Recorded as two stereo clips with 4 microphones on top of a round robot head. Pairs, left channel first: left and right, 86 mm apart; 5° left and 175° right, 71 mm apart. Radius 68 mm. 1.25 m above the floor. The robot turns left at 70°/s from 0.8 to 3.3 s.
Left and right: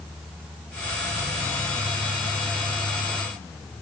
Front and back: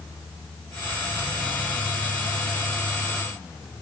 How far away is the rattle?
I don't hear a rattle.